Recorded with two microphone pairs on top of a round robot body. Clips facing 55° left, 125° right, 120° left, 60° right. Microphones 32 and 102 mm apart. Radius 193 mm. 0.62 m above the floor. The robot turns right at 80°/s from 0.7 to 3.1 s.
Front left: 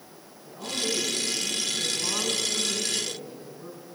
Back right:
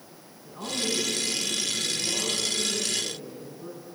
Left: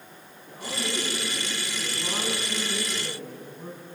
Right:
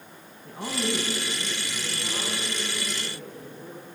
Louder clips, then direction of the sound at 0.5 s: Even, right 4 dB; 65° right.